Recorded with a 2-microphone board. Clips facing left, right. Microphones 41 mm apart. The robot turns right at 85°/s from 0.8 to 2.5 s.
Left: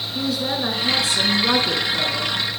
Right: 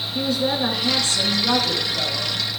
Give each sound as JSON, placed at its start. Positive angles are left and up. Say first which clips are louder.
{"t": 0.1, "sound": "a woman speaking", "louder": "right 2 dB", "side_deg": 0, "distance_m": 1.1}